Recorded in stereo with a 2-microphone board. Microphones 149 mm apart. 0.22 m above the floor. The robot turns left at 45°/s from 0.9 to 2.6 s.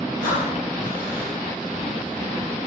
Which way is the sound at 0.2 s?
25° left (ahead or behind).